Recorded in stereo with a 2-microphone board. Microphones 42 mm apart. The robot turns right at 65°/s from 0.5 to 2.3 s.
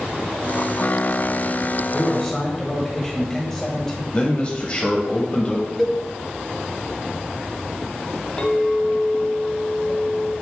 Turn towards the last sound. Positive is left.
turn(degrees=25)  # may be behind; listen again after turning